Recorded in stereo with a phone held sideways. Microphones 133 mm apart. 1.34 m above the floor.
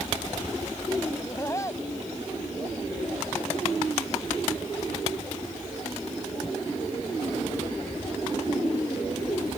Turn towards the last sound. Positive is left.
turn(degrees=25)  # may be behind; listen again after turning